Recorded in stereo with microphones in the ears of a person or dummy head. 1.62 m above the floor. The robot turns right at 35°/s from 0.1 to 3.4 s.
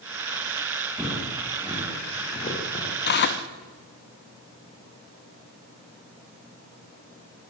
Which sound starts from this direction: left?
Tearing paper, at 3.0 s.